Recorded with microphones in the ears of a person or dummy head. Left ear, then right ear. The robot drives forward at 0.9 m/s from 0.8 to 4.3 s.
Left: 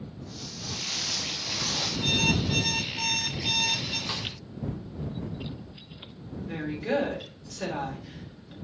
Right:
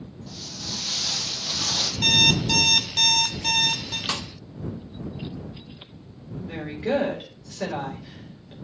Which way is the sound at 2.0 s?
55° right (ahead or behind).